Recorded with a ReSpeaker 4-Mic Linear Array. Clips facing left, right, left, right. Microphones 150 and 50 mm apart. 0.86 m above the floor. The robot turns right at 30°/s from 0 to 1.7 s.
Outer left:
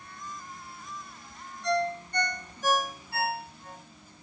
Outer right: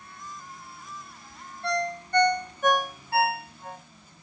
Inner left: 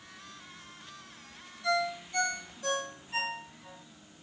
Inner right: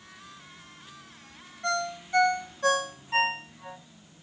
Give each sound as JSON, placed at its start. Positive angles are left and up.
{"t": 1.6, "sound": "a ringtone", "side_deg": -60, "distance_m": 0.6}